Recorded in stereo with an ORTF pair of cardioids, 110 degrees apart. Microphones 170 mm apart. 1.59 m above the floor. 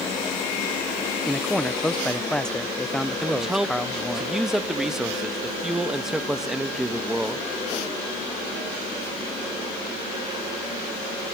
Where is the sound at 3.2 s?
5° right, 1.9 m.